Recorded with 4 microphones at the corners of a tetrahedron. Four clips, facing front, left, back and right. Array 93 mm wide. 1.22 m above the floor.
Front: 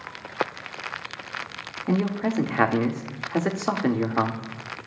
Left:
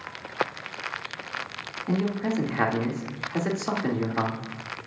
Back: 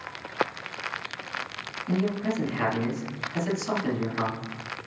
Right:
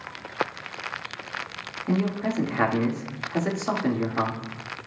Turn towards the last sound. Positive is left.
turn(degrees=0)